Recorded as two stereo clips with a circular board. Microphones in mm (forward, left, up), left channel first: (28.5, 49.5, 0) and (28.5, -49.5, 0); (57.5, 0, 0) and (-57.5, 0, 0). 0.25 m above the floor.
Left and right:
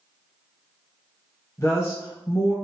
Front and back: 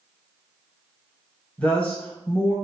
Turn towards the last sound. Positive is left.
turn(degrees=65)